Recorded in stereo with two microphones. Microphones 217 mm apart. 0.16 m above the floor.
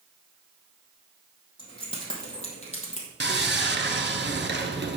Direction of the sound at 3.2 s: 55° right (ahead or behind).